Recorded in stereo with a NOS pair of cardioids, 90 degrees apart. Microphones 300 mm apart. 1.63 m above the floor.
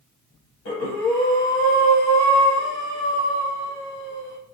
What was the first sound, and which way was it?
Breathing, 70° left.